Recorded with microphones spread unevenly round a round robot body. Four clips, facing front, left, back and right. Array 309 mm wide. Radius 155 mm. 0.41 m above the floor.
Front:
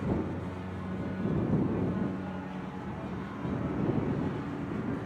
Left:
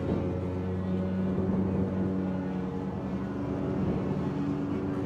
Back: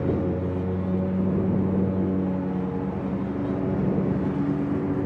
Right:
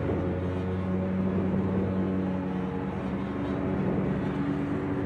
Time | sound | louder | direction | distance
0.0 | a lawn mower | right 2 dB, back 8 dB | 175° right | ?